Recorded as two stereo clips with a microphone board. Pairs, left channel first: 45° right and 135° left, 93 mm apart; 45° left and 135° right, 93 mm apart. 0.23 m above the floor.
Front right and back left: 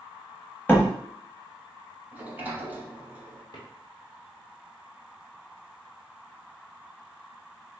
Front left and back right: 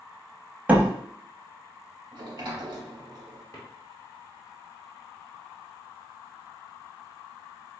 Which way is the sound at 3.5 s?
10° right.